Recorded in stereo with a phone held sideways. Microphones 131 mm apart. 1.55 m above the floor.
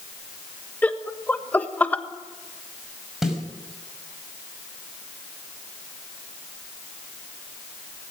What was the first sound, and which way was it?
Laughter, 15° left (ahead or behind).